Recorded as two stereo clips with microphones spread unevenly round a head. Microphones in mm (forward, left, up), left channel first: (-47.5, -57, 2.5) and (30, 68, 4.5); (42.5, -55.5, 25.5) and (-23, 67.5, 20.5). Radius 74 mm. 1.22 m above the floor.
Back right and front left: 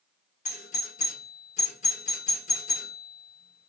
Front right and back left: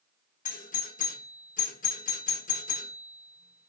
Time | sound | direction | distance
0.5 | a doorbell | 85° right | 1.1 m